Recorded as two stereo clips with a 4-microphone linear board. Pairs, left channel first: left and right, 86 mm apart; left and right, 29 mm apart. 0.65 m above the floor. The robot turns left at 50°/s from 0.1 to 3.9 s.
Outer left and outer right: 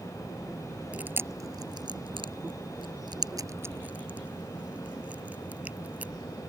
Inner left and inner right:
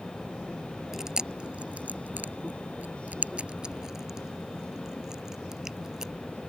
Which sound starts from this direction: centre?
Chewing, at 0.9 s.